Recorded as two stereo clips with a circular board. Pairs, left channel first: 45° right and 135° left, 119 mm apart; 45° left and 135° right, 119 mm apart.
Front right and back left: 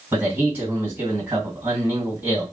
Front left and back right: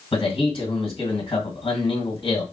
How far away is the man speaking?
About 1.6 m.